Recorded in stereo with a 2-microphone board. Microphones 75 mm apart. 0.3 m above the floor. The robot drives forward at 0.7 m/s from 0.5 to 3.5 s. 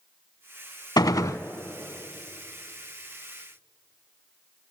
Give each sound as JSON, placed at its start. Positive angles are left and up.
{"t": 1.0, "sound": "a gunshot", "side_deg": 65, "distance_m": 0.6}